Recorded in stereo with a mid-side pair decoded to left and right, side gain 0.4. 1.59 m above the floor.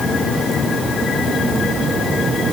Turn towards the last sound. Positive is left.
No sound to turn to.